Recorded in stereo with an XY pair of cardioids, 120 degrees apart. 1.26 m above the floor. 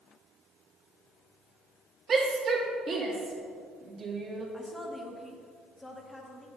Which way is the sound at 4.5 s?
10° left.